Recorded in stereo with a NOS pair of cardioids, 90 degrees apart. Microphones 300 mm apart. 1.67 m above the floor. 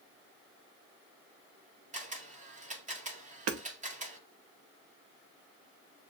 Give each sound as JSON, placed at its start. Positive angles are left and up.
{"t": 1.9, "sound": "a camera shutter", "azimuth_deg": -25, "distance_m": 1.8}
{"t": 3.5, "sound": "hammering", "azimuth_deg": -55, "distance_m": 0.9}